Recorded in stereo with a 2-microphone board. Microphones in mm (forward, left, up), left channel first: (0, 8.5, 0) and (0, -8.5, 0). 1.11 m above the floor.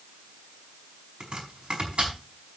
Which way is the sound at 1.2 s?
85° right.